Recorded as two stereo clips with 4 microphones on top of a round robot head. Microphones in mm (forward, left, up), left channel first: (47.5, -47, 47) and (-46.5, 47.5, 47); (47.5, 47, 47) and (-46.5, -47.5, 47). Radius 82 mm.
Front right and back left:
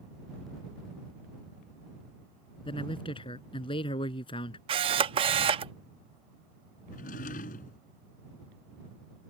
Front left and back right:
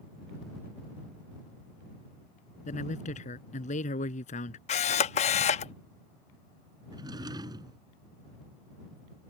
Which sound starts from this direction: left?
A camera shutter, at 4.7 s.